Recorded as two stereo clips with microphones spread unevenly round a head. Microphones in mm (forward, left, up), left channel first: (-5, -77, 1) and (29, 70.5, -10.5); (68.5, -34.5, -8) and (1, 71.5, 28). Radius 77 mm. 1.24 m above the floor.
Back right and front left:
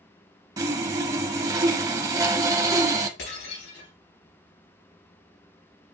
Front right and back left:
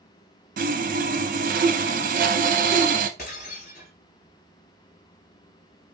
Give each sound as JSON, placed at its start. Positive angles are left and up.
{"t": 0.6, "sound": "sawing", "azimuth_deg": 150, "distance_m": 0.6}
{"t": 3.2, "sound": "breaking glass", "azimuth_deg": -100, "distance_m": 4.0}